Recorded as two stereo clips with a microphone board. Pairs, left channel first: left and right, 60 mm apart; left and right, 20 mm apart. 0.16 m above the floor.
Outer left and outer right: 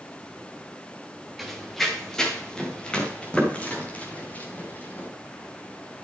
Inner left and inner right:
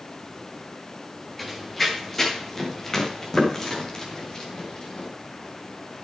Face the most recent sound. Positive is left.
turn(degrees=30)  # may be behind; listen again after turning